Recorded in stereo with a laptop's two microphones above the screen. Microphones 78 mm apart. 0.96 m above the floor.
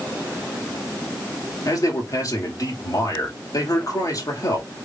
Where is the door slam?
I don't hear a door slam.